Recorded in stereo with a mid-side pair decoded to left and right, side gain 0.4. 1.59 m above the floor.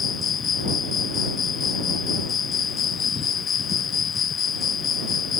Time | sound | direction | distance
0.0 | an insect | 60° left | ?